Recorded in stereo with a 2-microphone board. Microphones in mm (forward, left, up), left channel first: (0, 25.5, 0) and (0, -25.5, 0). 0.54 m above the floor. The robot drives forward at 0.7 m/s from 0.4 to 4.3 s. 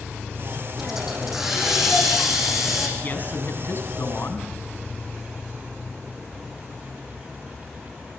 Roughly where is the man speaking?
Left.